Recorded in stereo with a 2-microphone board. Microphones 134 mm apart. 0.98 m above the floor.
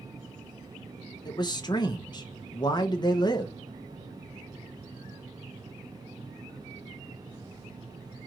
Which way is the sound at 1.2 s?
35° left (ahead or behind).